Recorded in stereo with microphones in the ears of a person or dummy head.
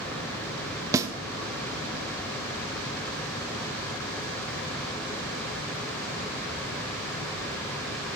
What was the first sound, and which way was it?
A snare drum, 15° right (ahead or behind).